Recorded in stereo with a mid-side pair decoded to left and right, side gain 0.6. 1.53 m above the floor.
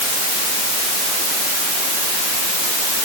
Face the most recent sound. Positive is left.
No sound to turn to.